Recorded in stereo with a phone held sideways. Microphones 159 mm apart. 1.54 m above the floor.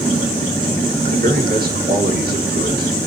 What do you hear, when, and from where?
1.1 s a man speaking: 70° right (ahead or behind), 2.5 m; by 3.1 s 90° right, 1.6 m